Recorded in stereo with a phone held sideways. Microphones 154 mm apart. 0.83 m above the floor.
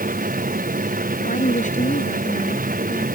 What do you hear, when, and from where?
0.0 s a machine running: 65° right (ahead or behind)
1.2 s a woman speaking: 55° left (ahead or behind)